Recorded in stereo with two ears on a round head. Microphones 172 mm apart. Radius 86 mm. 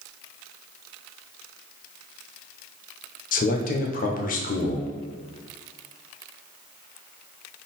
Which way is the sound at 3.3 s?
45° left (ahead or behind).